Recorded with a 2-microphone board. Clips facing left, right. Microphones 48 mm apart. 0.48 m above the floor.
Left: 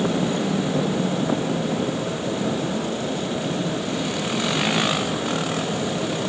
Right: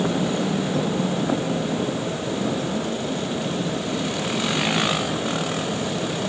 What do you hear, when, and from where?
Only background noise.